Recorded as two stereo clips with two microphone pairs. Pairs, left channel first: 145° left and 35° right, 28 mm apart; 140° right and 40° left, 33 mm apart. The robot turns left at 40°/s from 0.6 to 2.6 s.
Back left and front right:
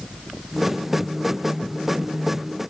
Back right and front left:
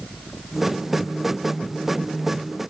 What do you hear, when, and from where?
Only background noise.